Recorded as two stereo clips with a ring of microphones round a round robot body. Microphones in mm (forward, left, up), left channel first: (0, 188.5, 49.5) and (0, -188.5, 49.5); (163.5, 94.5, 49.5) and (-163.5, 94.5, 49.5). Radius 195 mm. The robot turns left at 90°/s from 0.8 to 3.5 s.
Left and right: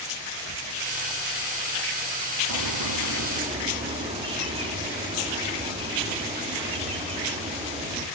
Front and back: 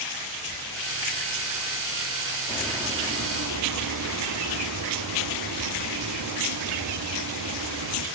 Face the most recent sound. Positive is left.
turn(degrees=-160)